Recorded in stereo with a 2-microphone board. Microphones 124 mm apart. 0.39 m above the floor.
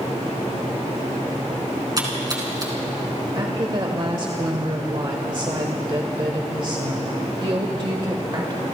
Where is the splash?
30° right (ahead or behind), 4.5 m.